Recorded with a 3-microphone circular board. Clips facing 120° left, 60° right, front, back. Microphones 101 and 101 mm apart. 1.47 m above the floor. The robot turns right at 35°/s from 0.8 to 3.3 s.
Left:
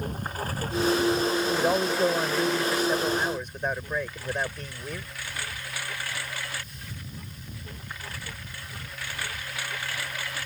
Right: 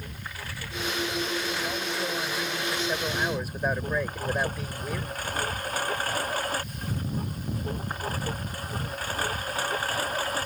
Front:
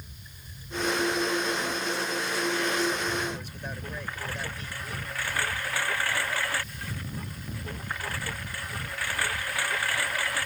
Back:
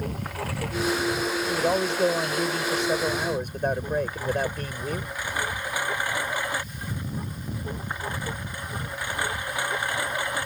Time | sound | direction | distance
0.0 | a lawn mower | 170° left | ?
1.5 | a man speaking | 155° left | ?